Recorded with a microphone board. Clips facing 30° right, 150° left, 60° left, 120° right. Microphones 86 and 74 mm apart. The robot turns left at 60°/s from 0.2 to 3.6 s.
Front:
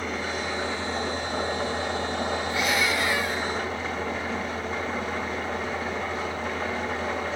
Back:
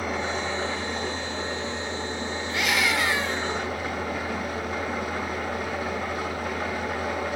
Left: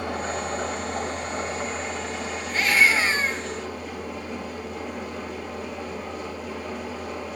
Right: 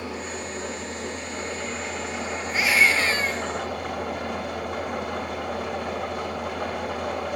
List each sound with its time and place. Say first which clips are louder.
0.0 s an engine running: back 2 dB, left 4 dB; 70° left, 2 m; by 7.4 s 135° right, 2 m
2.5 s a scream: back 3 dB, left 1 dB; 170° left, 1.7 m; by 3.5 s 110° left, 1.7 m